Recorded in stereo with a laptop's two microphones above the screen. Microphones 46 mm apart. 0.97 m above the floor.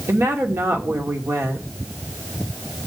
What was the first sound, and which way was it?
A woman speaking, 65° right (ahead or behind).